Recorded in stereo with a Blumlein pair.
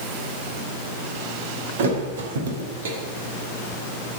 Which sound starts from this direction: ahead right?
A thud, at 1.8 s.